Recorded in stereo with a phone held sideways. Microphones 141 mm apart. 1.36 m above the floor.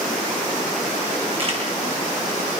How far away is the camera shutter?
About 9.5 m.